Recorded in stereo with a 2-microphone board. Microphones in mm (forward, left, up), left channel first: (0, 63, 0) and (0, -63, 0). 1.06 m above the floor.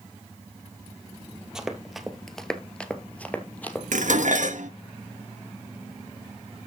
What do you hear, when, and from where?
1.6 s running footsteps: 5° right (ahead or behind), 1.5 m; by 3.8 s 15° left (ahead or behind), 1.7 m
3.9 s dishes clattering: 80° right, 0.9 m